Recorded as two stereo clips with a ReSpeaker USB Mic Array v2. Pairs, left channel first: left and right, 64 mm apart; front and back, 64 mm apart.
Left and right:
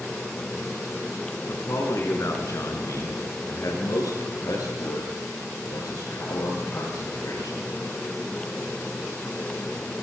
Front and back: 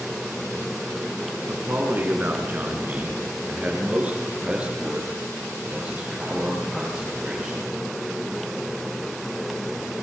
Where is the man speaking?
125° left, 6 m; by 7.6 s 105° left, 11.5 m.